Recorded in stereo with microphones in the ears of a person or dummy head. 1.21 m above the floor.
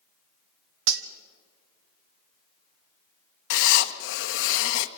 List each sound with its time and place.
0.9 s cutlery clinking: 70° right (ahead or behind), 1.1 m
3.5 s writing: 60° left (ahead or behind), 1.1 m